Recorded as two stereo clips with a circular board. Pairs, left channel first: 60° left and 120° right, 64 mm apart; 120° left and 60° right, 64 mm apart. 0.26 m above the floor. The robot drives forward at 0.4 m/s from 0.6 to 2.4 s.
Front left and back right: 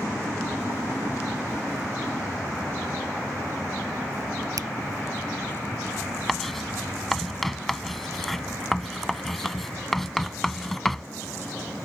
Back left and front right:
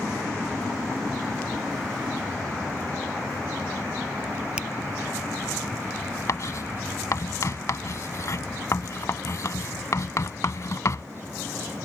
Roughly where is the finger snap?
Behind right.